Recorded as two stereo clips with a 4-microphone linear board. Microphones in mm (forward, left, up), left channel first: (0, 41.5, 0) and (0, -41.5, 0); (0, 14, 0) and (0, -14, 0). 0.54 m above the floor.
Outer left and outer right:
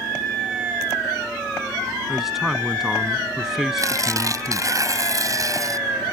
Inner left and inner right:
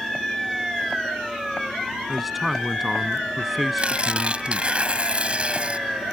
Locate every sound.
2.1 s a man speaking: 5° right (ahead or behind)
3.8 s tearing paper: 45° right (ahead or behind)